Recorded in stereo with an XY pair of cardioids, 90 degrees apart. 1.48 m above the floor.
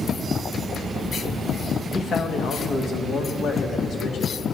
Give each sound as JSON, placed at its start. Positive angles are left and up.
{"t": 1.9, "sound": "a man speaking", "azimuth_deg": 60, "distance_m": 1.7}